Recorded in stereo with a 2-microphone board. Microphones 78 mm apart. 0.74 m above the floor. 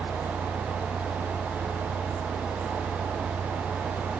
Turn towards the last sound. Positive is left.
turn(degrees=20)  # may be behind; listen again after turning